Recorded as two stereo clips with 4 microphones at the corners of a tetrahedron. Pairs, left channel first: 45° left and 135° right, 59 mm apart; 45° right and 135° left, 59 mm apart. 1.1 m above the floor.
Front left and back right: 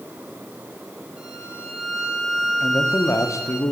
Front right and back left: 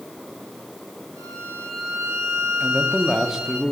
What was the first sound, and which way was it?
A violin, 150° left.